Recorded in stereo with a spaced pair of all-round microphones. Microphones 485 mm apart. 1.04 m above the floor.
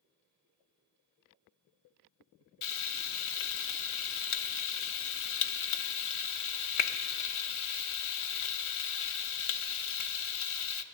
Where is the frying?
80° left, 0.5 m.